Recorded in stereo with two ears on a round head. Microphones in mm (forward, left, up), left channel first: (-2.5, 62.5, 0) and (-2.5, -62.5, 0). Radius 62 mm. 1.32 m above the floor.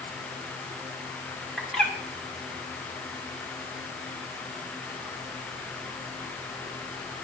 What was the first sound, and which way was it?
A bird, centre (ahead or behind).